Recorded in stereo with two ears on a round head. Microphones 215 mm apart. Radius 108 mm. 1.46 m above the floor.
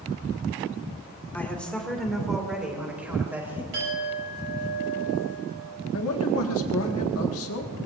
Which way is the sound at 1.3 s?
10° left (ahead or behind).